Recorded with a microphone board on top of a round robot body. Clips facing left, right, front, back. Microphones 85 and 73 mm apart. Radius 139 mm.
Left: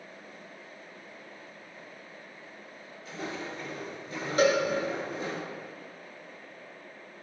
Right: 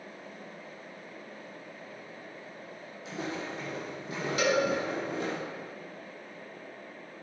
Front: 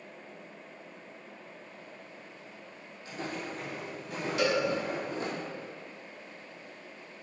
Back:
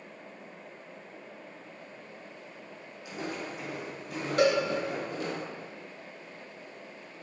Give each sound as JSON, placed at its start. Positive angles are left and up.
{"t": 3.0, "sound": "footsteps", "azimuth_deg": -105, "distance_m": 3.5}
{"t": 4.4, "sound": "a cowbell", "azimuth_deg": 140, "distance_m": 2.0}